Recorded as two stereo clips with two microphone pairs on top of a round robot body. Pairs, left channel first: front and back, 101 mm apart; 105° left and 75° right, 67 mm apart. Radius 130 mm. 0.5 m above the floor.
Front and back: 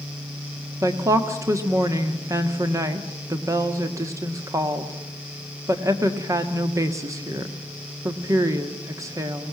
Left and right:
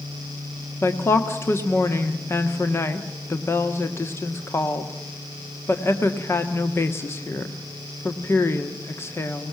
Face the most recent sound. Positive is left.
turn(degrees=145)